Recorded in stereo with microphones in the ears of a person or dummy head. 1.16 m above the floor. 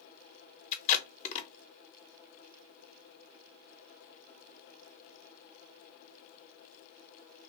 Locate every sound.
0.7 s tape being pulled: 40° left (ahead or behind), 0.9 m